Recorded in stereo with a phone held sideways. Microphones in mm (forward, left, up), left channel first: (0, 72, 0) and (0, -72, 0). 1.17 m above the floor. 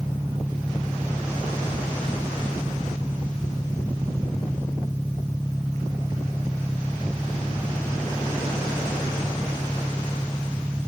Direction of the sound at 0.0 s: 5° right (ahead or behind).